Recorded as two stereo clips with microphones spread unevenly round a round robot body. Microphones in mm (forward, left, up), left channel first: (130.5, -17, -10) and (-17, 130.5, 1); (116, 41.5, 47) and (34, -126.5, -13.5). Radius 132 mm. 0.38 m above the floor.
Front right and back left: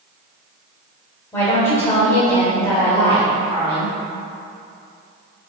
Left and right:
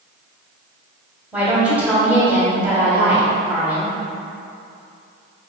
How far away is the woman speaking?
About 1.4 m.